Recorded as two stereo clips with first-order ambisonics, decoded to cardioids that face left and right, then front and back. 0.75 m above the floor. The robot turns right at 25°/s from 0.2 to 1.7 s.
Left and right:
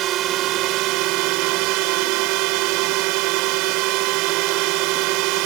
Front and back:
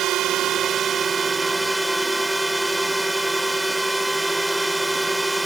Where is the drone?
130° right; by 5.5 s 95° right.